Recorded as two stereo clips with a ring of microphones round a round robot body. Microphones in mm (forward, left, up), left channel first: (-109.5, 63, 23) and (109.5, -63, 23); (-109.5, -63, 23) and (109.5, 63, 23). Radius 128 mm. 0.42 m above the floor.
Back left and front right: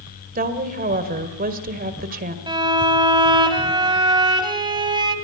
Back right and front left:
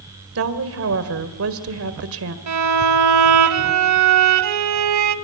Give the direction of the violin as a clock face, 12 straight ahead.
11 o'clock.